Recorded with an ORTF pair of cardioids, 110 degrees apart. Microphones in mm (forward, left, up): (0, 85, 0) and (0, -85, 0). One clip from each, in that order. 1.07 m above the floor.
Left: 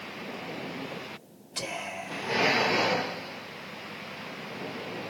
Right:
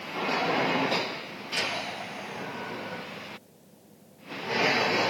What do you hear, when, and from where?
1.6 s whispering: 60° left, 1.9 m